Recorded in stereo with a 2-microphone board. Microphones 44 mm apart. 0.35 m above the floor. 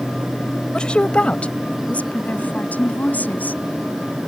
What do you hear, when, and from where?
0.7 s a woman speaking: 20° left (ahead or behind); by 3.6 s 40° left (ahead or behind)